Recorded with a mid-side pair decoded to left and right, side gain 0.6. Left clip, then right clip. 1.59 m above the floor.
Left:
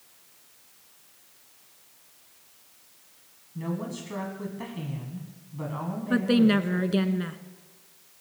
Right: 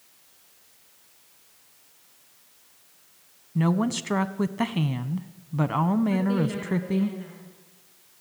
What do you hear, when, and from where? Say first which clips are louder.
3.5 s a woman speaking: right 8 dB; 65° right, 1.0 m
6.1 s a woman speaking: left 4 dB; 65° left, 1.5 m